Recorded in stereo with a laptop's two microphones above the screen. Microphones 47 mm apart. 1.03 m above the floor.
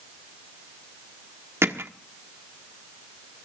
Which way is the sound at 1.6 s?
60° right (ahead or behind).